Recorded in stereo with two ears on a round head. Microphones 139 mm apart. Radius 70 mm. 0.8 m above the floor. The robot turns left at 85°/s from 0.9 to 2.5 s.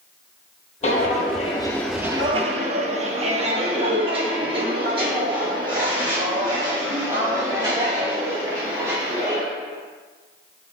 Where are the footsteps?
50° left (ahead or behind), 1.5 m; by 9.4 s 25° right (ahead or behind), 5 m.